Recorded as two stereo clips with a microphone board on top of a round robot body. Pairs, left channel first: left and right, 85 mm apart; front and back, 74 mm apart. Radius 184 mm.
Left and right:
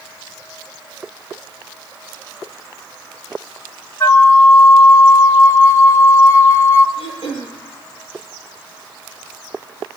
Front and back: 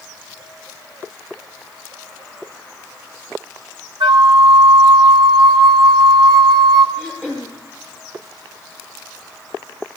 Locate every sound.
4.0 s a flute: 150° left, 0.9 m
7.0 s throat clearing: 105° left, 9.5 m